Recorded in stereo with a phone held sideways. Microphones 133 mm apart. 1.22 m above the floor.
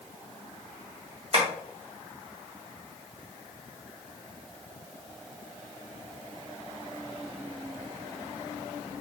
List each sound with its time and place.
1.3 s tapping: 50° right (ahead or behind), 1.5 m